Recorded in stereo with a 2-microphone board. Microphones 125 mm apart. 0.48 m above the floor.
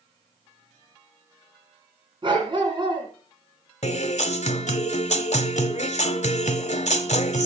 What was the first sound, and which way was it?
A dog barking, 45° right (ahead or behind).